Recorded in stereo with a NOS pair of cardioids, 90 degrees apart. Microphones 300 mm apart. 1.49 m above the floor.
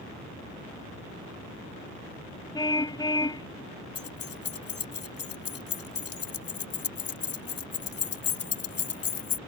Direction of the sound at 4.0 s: 55° left.